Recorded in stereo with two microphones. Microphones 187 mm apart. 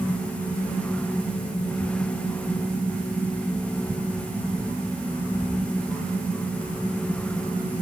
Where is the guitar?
No guitar in this recording.